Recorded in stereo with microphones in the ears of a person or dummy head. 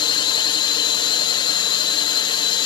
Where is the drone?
15° left (ahead or behind).